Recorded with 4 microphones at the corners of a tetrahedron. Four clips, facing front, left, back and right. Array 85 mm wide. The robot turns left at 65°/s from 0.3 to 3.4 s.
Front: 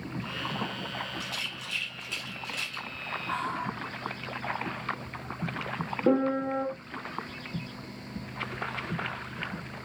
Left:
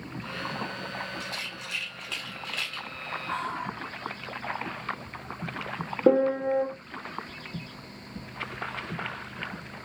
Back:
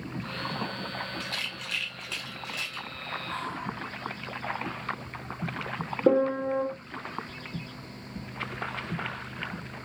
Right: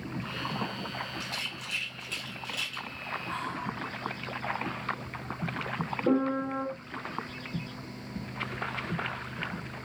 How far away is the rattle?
About 1.0 m.